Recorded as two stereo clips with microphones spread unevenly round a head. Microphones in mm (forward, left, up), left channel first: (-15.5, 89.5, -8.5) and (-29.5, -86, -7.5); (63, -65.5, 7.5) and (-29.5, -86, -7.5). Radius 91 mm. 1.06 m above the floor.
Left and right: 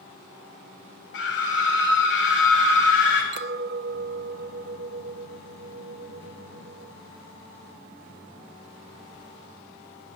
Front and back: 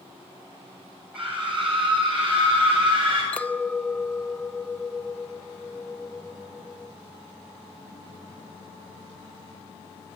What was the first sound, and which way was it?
A scream, 110° left.